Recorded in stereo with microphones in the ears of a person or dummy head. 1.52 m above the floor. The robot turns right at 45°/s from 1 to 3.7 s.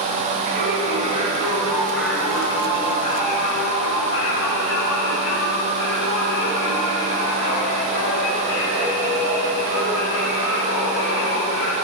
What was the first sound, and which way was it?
Singing, 45° right.